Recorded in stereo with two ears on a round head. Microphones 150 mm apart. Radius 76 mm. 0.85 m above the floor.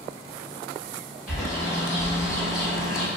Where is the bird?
Centre (ahead or behind), 1.5 m.